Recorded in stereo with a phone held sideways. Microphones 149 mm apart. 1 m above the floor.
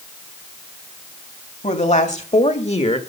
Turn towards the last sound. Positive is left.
turn(degrees=45)  # may be behind; listen again after turning